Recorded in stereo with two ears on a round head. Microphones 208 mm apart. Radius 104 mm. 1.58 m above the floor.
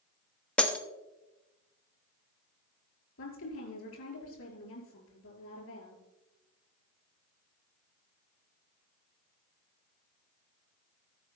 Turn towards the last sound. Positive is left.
turn(degrees=70)  # may be behind; listen again after turning